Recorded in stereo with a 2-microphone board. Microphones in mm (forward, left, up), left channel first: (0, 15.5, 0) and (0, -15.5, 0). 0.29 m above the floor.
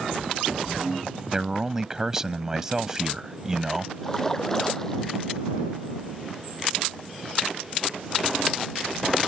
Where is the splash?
15° left (ahead or behind).